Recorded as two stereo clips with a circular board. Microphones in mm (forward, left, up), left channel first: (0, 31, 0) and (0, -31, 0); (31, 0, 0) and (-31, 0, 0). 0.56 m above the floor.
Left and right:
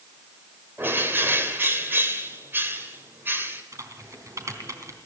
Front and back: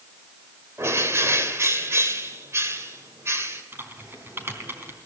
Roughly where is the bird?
Behind right.